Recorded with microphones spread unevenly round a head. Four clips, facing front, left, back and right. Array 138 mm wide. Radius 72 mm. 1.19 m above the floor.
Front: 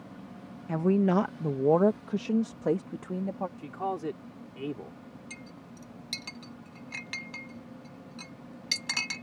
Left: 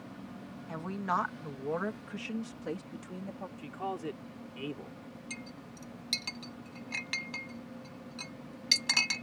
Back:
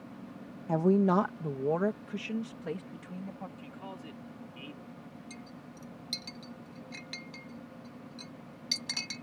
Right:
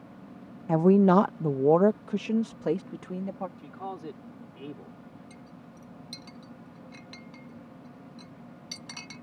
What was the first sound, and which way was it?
A woman speaking, 100° right.